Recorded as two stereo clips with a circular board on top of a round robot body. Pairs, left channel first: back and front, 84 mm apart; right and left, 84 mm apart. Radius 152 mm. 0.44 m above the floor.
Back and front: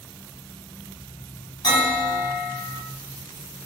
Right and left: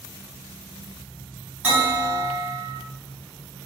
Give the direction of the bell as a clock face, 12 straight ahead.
7 o'clock.